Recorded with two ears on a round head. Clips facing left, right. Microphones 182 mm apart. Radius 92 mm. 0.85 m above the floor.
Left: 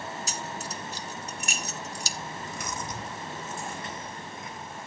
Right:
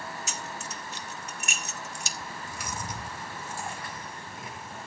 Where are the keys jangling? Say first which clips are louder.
Left 3 dB; 30° left (ahead or behind), 0.7 m.